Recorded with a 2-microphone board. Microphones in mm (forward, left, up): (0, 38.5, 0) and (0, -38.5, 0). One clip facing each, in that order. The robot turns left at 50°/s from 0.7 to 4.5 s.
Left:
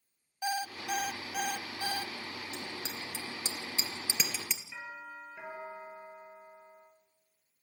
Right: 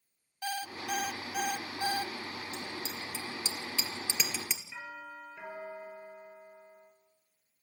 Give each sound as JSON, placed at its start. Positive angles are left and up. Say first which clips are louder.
{"t": 0.4, "sound": "an alarm clock", "louder": "left 2 dB", "azimuth_deg": 25, "distance_m": 0.6}
{"t": 2.5, "sound": "a bicycle bell", "louder": "right 1 dB", "side_deg": 75, "distance_m": 2.5}
{"t": 4.7, "sound": "a doorbell", "louder": "even", "side_deg": 15, "distance_m": 6.5}